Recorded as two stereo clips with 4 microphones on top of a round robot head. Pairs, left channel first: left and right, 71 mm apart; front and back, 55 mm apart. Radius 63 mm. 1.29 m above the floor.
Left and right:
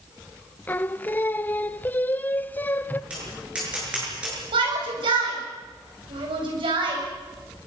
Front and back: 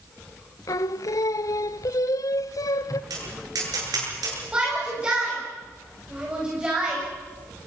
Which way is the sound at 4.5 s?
100° right.